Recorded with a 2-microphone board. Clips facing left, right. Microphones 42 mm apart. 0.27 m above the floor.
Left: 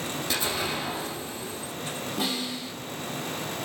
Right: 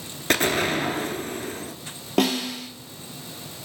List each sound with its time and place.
0.3 s an explosion: 65° right (ahead or behind), 0.7 m
2.2 s a snare drum: 75° right (ahead or behind), 1.2 m